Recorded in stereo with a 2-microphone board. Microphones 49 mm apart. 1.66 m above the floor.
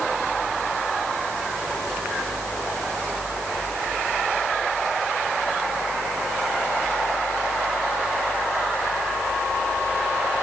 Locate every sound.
Only background noise.